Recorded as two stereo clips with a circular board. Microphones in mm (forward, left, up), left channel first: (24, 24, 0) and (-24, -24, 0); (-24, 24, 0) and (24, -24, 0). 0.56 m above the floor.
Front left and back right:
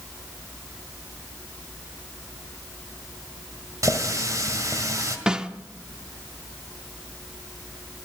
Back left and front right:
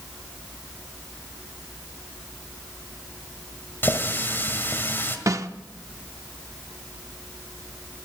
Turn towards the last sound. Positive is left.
turn(degrees=-60)